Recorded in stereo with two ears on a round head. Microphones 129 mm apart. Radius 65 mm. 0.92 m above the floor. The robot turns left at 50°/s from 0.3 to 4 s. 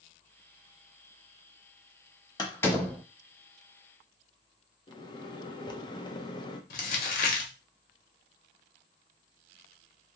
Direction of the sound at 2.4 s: 30° left (ahead or behind).